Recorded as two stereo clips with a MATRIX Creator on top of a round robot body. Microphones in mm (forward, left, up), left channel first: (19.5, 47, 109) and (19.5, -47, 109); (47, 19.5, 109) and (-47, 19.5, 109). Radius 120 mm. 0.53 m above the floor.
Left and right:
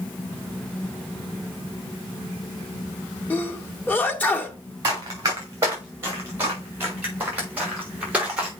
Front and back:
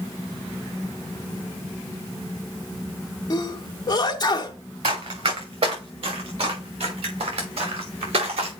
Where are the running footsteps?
150° right, 3.5 m; by 8.5 s 170° right, 5 m.